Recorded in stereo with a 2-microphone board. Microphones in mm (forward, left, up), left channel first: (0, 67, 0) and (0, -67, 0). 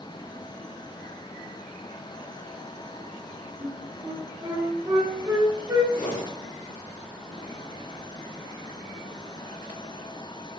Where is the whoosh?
80° left, 1.6 m.